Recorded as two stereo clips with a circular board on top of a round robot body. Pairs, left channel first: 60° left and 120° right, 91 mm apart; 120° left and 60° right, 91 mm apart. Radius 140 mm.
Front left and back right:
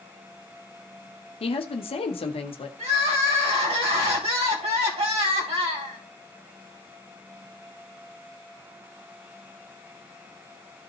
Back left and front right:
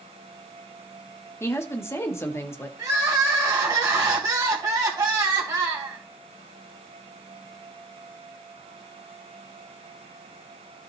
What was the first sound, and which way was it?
A woman speaking, 60° left.